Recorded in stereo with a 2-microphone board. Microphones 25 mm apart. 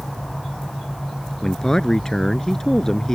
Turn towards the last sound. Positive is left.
turn(degrees=20)  # may be behind; listen again after turning